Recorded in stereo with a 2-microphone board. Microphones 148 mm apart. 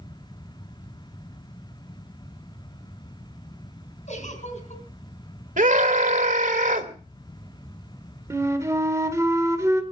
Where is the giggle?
55° left (ahead or behind), 4 m.